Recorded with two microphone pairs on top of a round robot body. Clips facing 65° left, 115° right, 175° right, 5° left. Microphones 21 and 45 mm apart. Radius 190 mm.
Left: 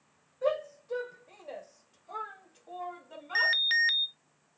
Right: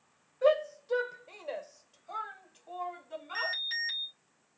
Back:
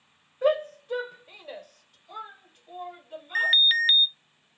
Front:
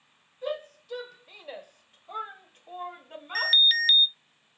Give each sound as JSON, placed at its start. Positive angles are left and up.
{"t": 0.4, "sound": "a shout", "azimuth_deg": -165, "distance_m": 1.5}
{"t": 3.4, "sound": "an alarm", "azimuth_deg": 115, "distance_m": 0.5}